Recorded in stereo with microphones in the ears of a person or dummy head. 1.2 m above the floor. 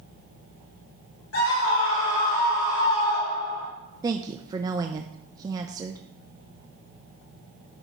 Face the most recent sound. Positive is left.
turn(degrees=-20)  # may be behind; listen again after turning